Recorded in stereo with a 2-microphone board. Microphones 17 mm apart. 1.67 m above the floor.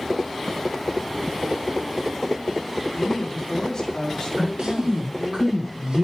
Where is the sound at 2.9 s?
35° left (ahead or behind), 3.5 m.